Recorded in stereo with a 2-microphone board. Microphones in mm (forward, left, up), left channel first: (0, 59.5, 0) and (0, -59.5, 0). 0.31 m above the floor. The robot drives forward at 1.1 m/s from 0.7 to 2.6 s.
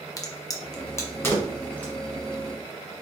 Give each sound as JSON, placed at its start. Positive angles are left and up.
{"t": 0.2, "sound": "a crack", "side_deg": 30, "distance_m": 1.0}